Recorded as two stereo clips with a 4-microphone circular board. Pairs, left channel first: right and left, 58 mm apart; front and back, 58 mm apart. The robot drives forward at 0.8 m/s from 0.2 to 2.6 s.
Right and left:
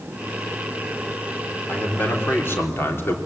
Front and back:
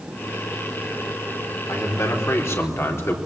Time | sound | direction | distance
1.7 | a man speaking | 35° right | 4 m